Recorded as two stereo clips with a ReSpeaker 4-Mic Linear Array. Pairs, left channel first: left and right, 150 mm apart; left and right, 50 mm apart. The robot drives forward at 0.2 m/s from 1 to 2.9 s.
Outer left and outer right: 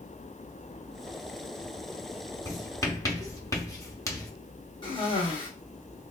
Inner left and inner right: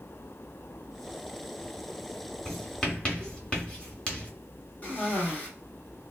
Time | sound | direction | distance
2.5 | writing | 20° left (ahead or behind) | 0.7 m
4.8 | a cough | 35° left (ahead or behind) | 1.3 m